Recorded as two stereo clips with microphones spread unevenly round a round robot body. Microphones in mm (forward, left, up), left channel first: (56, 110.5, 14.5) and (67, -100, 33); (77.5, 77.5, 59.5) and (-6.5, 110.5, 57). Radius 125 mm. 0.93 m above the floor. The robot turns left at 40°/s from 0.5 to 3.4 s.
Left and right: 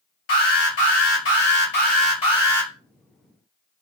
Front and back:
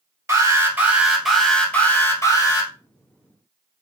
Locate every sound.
0.3 s an alarm: 100° left, 3 m; by 2.7 s 10° left, 3 m